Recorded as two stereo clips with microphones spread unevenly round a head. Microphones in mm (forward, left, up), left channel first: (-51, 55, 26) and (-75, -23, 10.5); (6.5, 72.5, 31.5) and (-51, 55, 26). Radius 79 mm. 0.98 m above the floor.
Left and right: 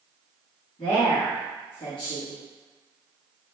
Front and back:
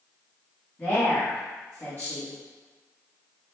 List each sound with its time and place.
0.8 s a woman speaking: 80° left, 1.4 m